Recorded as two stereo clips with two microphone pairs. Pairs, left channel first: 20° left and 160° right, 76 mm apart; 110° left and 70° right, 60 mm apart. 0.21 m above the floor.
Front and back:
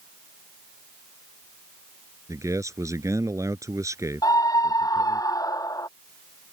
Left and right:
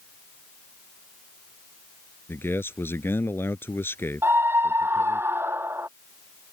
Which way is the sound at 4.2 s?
20° right.